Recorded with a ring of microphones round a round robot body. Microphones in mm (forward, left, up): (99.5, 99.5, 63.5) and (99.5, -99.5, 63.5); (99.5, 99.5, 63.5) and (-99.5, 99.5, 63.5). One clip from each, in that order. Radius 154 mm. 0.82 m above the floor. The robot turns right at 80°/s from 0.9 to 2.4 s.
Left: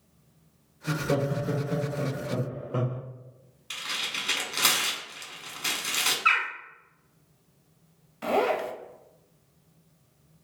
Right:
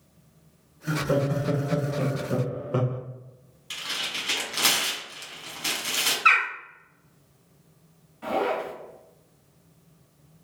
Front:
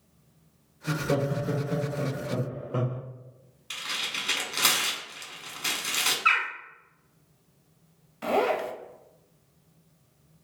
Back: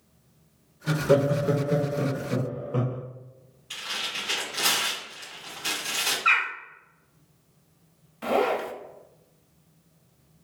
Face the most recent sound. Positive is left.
turn(degrees=80)